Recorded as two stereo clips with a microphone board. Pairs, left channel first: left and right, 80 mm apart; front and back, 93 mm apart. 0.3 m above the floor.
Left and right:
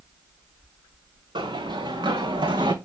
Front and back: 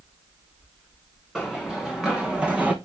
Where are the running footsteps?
90° right, 2 m; by 2.7 s 105° right, 1.3 m.